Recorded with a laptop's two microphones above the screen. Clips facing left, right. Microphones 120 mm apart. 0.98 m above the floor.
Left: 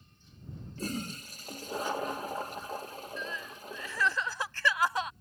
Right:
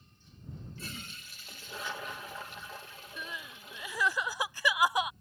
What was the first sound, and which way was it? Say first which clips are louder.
A toilet flushing: left 10 dB; 40° left (ahead or behind).